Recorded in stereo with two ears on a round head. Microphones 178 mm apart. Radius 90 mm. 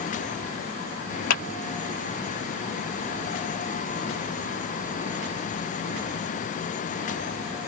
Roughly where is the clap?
Left.